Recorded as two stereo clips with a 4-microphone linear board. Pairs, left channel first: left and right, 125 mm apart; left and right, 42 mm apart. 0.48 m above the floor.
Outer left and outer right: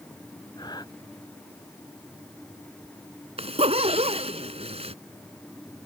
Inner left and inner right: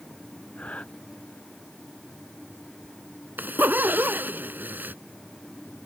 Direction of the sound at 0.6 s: 35° left (ahead or behind).